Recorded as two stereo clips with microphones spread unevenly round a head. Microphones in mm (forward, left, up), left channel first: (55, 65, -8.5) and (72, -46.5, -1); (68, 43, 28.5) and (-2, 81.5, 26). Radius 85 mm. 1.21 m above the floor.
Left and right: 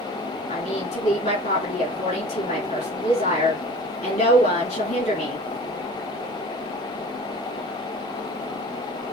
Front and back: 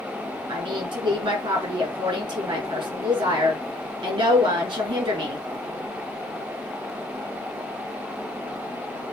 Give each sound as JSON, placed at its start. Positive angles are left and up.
{"t": 0.5, "sound": "a woman speaking", "azimuth_deg": 145, "distance_m": 3.5}